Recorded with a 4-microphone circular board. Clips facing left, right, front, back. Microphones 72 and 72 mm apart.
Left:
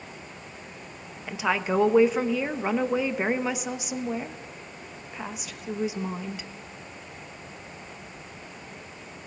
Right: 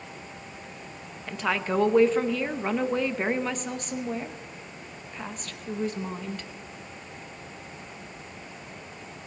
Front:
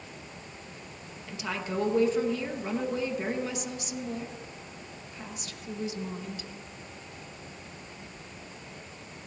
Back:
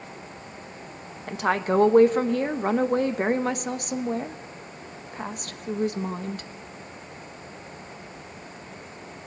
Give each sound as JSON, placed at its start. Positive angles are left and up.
{"t": 1.3, "sound": "a woman speaking", "azimuth_deg": 170, "distance_m": 0.9}